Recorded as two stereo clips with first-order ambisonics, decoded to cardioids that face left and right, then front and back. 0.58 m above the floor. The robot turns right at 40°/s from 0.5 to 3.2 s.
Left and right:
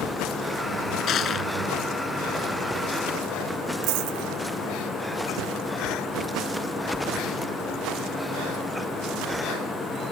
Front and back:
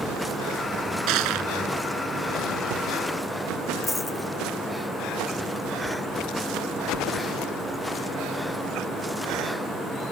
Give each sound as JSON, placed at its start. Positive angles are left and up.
{"t": 1.1, "sound": "crushing", "azimuth_deg": 145}
{"t": 3.8, "sound": "a dropped coin", "azimuth_deg": -85}